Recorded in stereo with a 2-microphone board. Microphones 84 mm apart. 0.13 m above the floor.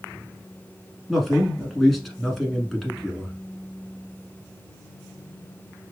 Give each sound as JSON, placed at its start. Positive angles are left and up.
{"t": 1.1, "sound": "a man speaking", "side_deg": 0, "distance_m": 1.1}